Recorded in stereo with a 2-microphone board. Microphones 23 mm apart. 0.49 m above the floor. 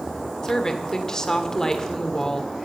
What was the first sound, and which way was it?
A woman speaking, 20° left (ahead or behind).